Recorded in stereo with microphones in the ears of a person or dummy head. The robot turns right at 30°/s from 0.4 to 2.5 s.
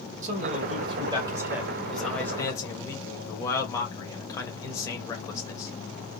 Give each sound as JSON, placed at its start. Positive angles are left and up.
{"t": 0.2, "sound": "a man speaking", "azimuth_deg": -45, "distance_m": 2.0}